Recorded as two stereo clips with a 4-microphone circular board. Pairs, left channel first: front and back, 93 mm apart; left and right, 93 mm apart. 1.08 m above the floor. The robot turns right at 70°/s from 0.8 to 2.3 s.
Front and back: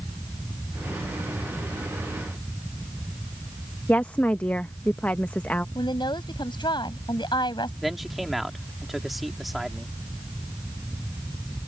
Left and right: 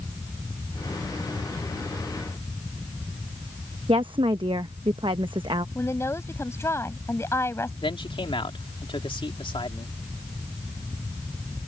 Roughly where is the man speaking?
Left.